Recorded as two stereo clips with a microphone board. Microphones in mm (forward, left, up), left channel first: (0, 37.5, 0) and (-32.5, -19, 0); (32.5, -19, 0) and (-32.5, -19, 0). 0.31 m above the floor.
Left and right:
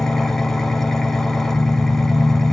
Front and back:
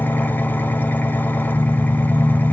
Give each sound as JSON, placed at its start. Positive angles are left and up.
{"t": 0.0, "sound": "an engine running", "azimuth_deg": -20, "distance_m": 0.9}